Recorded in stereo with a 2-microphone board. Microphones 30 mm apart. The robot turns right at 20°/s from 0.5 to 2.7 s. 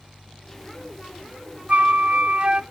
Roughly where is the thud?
I don't hear a thud.